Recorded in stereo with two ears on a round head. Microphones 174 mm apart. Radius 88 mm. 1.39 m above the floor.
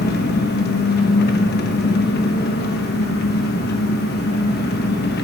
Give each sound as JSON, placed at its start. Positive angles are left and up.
{"t": 0.0, "sound": "an engine running", "side_deg": 55, "distance_m": 1.1}